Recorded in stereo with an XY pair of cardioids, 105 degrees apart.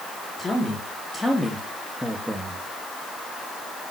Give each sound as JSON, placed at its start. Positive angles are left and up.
{"t": 0.4, "sound": "a man speaking", "azimuth_deg": 25, "distance_m": 3.5}